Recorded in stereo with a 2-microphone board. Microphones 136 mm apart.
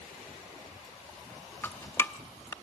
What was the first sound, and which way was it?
Dripping, 15° left (ahead or behind).